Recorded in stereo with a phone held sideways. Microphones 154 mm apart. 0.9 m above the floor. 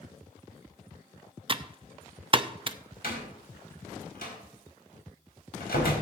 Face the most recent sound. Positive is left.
turn(degrees=80)